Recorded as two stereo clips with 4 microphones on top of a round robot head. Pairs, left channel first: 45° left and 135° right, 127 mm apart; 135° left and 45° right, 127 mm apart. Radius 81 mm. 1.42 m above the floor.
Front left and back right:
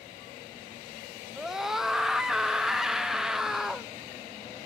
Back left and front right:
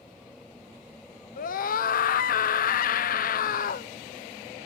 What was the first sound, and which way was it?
A scream, 140° left.